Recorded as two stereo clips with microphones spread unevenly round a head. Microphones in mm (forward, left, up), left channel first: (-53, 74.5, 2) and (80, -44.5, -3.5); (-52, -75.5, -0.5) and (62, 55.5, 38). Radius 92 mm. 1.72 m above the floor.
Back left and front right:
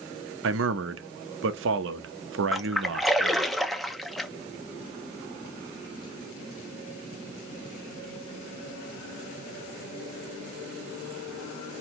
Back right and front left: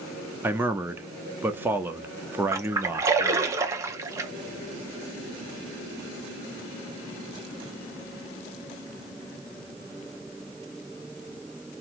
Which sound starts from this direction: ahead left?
A splash, at 2.5 s.